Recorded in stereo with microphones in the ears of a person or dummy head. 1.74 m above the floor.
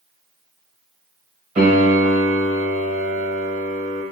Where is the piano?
30° right (ahead or behind), 0.8 m.